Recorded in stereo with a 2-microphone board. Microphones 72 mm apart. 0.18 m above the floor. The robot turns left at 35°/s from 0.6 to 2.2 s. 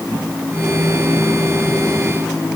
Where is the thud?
No thud in this recording.